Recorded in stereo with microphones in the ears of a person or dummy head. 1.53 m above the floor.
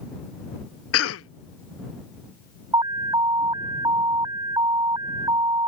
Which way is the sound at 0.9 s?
75° left (ahead or behind).